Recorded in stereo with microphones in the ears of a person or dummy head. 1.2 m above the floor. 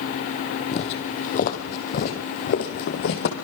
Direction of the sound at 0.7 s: 35° left (ahead or behind).